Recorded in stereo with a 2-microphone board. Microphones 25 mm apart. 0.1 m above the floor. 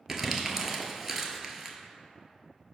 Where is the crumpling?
15° right (ahead or behind), 0.6 m.